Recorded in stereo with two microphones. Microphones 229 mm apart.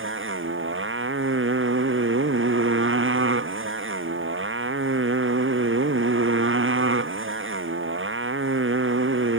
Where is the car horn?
No car horn in this recording.